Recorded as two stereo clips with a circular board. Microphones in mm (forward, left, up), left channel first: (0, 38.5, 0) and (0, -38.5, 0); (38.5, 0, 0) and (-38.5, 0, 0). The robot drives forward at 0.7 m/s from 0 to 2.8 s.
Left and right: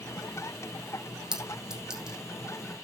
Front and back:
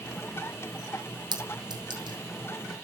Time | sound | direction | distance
1.3 | a clink | 170° right | 2.5 m